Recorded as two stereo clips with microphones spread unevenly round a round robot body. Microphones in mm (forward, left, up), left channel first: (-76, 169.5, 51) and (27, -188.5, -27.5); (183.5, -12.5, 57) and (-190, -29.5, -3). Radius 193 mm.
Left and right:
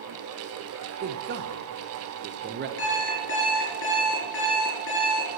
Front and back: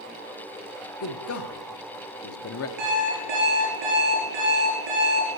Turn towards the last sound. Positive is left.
turn(degrees=165)